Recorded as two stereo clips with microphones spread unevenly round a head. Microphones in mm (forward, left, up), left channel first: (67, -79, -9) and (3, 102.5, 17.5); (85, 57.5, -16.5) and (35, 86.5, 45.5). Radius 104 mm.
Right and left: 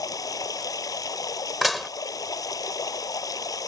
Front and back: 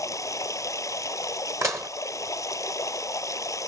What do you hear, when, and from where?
0.0 s running water: straight ahead
1.6 s dishes clattering: 165° right